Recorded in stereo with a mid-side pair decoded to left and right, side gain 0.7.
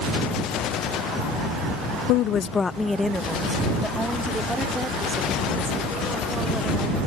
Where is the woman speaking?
65° left; by 7.0 s 15° right.